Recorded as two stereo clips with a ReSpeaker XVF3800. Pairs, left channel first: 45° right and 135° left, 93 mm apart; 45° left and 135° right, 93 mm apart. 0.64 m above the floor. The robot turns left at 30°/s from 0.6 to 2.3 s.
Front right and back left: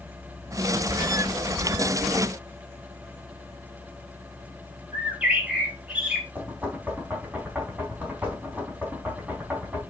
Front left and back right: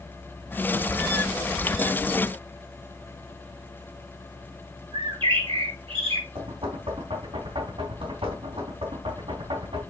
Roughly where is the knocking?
Behind right.